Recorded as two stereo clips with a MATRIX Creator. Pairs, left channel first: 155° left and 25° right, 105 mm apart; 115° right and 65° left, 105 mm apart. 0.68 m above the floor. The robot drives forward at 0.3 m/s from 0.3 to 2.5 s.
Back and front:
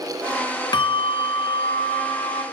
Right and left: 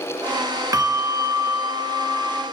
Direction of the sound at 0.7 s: 120° left.